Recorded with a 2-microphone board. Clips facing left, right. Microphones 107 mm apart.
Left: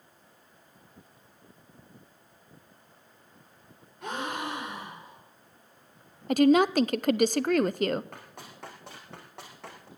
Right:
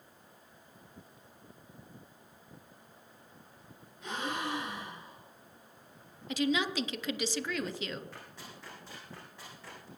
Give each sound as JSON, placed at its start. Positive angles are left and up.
{"t": 4.0, "sound": "a gasp", "side_deg": 70, "distance_m": 6.0}
{"t": 6.3, "sound": "a woman speaking", "side_deg": 55, "distance_m": 0.5}
{"t": 8.1, "sound": "running footsteps", "side_deg": 60, "distance_m": 4.5}